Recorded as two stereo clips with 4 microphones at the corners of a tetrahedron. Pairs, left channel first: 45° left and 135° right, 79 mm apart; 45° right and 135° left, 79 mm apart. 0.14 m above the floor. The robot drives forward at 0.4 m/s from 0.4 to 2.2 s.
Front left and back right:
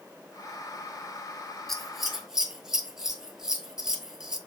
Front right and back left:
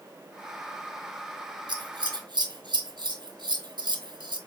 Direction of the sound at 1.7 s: 130° left.